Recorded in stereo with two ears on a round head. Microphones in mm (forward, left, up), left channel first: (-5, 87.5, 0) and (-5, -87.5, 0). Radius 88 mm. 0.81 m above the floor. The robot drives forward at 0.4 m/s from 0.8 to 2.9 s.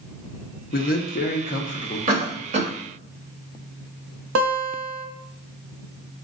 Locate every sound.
0.7 s a man speaking: 50° left (ahead or behind), 0.9 m; by 2.0 s 35° left (ahead or behind), 1.1 m
2.1 s a cough: 40° right (ahead or behind), 1.3 m; by 2.7 s 35° right (ahead or behind), 1.4 m
4.3 s a guitar: 75° right (ahead or behind), 0.7 m